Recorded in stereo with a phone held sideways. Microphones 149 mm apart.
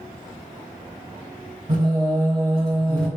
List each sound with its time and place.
1.7 s singing: 75° right (ahead or behind), 1.8 m